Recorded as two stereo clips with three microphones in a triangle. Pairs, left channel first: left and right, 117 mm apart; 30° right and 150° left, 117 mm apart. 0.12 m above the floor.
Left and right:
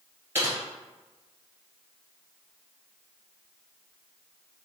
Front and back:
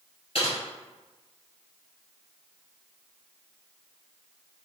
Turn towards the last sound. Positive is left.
turn(degrees=-25)